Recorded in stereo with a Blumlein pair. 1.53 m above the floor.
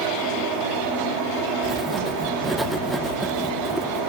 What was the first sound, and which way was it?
A fan, 40° right.